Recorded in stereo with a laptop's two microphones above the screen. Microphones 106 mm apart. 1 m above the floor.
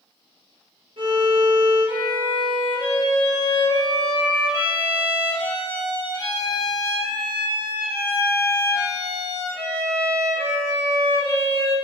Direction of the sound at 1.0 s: 55° right (ahead or behind).